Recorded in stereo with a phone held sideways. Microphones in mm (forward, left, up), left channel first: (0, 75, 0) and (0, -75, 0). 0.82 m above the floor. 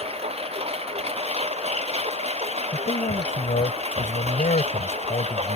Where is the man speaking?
60° left (ahead or behind).